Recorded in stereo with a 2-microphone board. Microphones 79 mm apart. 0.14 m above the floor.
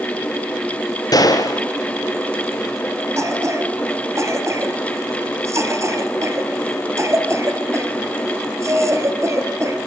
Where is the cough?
35° right (ahead or behind), 2 m.